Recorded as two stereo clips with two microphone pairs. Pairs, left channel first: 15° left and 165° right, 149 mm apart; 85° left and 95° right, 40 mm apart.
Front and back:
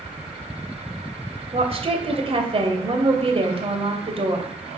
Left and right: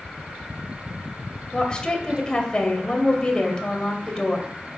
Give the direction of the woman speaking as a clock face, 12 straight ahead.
7 o'clock.